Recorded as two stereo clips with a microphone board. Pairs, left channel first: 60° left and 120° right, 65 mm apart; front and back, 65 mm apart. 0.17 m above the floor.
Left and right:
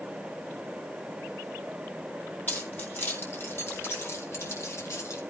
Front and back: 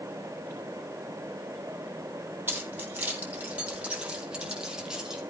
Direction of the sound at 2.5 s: 120° left.